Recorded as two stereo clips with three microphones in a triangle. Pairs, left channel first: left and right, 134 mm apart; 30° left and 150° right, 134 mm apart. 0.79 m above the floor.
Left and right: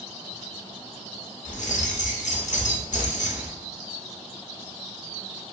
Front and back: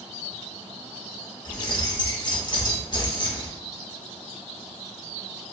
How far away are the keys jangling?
About 0.5 m.